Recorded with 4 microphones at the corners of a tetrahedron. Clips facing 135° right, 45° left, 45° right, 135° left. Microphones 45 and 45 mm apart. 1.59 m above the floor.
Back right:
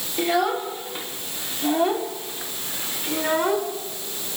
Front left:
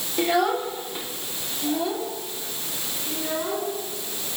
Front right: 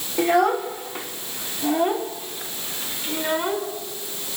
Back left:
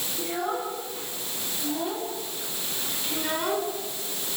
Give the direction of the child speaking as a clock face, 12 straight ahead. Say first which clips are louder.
Even, front right 11 dB; 1 o'clock.